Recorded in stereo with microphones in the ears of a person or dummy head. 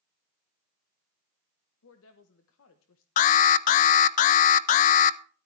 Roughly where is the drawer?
I don't hear a drawer.